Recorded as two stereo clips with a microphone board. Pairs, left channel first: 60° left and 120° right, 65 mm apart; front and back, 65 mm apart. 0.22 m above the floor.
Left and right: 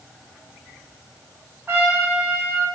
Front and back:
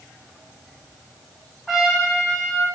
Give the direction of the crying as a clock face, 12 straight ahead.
I don't hear crying.